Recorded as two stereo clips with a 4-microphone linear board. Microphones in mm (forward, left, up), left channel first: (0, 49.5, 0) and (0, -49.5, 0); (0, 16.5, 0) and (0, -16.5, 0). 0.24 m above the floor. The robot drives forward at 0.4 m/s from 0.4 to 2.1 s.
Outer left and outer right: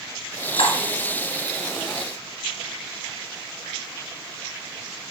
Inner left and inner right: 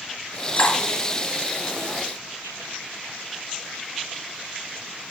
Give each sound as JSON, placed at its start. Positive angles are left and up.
{"t": 0.6, "sound": "cutlery clinking", "side_deg": 65, "distance_m": 1.6}